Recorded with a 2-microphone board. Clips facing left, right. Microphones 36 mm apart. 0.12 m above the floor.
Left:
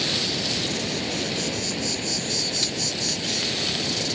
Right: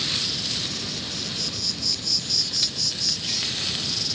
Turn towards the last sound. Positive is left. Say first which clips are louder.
# left 2 dB
turn(degrees=50)  # may be behind; listen again after turning